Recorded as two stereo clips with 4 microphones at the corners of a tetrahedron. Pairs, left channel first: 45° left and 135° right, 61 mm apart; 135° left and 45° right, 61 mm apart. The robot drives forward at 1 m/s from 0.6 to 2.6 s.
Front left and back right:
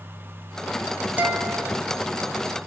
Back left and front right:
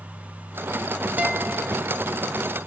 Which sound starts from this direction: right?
A guitar, at 1.2 s.